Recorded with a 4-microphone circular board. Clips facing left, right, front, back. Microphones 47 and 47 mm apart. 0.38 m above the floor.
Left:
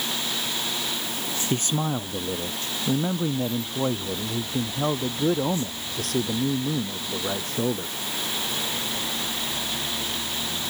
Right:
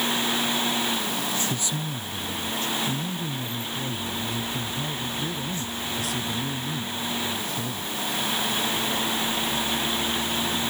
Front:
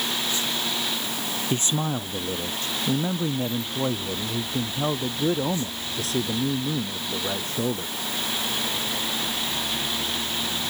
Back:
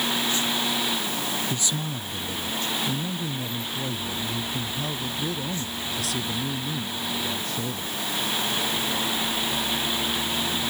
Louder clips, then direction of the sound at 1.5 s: Left 4 dB, front 4 dB; 50° left.